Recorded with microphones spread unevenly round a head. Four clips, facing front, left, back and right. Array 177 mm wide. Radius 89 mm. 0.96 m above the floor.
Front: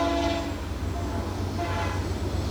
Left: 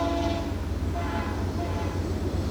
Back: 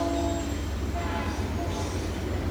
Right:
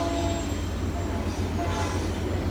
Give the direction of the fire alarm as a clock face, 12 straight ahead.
No fire alarm in this recording.